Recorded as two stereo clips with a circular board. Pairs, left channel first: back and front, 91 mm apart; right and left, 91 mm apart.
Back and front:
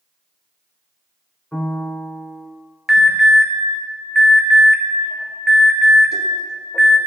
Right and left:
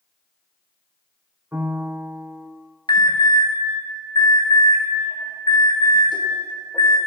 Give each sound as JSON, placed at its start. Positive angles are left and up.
{"t": 1.5, "sound": "a piano", "azimuth_deg": 115, "distance_m": 0.8}
{"t": 2.9, "sound": "an alarm", "azimuth_deg": -85, "distance_m": 1.5}